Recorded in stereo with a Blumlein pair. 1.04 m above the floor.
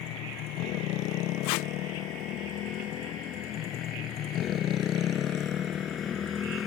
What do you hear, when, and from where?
0.0 s a motorcycle: 40° left; by 6.7 s 20° left
1.4 s tape being pulled: 45° left